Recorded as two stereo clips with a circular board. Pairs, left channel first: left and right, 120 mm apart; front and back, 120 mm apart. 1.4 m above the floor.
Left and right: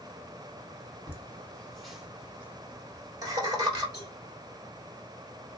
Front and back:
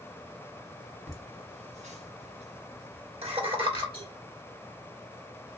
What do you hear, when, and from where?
1.1 s laughter: 160° left, 1.2 m; by 3.8 s 140° right, 1.7 m
3.9 s a cowbell: 145° left, 2.5 m